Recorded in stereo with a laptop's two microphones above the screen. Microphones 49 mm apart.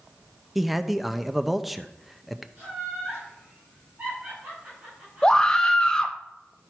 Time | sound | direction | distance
0.6 | a man speaking | 5° right (ahead or behind) | 0.6 m
2.6 | laughter | 40° right (ahead or behind) | 5.5 m
5.2 | a scream | 15° left (ahead or behind) | 0.5 m